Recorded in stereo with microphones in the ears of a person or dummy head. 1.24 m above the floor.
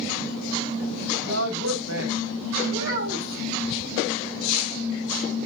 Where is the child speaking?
75° right (ahead or behind), 5 m.